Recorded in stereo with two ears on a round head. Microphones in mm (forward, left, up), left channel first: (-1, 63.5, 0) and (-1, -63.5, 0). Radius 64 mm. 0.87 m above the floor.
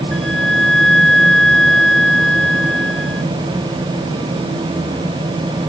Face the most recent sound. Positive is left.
turn(degrees=5)  # may be behind; listen again after turning